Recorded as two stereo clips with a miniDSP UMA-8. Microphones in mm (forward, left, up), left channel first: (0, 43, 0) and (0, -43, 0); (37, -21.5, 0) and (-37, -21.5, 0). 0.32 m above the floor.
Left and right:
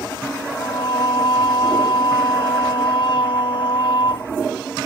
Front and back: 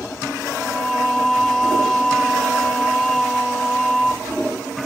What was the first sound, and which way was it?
Singing, 85° left.